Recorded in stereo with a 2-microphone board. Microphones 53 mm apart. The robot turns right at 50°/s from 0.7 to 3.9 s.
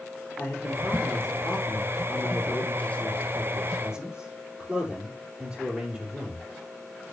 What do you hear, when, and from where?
0.4 s a man speaking: 35° left, 3.5 m; by 6.5 s 165° right, 3.5 m